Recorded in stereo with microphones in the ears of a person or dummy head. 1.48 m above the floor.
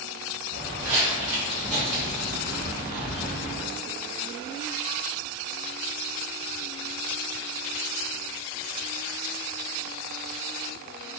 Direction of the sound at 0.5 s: 35° right (ahead or behind).